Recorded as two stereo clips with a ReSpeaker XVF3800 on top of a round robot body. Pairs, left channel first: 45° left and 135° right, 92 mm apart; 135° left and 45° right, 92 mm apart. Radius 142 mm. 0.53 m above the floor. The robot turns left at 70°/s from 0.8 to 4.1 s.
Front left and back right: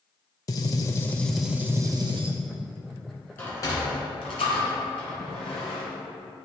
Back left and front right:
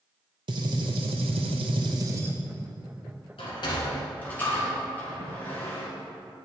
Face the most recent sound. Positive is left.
turn(degrees=65)